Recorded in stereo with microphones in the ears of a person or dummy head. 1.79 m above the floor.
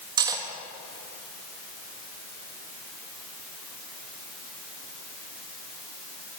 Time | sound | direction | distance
0.2 | cutlery clinking | 25° right (ahead or behind) | 1.4 m